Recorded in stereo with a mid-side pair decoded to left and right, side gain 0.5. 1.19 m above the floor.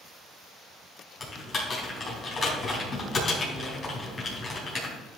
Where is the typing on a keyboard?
40° left, 4 m.